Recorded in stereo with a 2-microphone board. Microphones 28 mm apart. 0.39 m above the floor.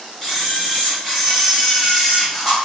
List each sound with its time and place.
0.2 s a camera shutter: 5° left (ahead or behind), 1.6 m